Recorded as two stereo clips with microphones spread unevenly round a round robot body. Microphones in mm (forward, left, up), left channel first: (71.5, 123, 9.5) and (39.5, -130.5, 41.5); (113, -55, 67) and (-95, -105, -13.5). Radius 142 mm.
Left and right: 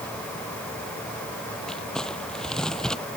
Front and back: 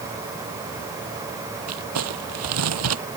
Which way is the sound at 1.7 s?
170° left.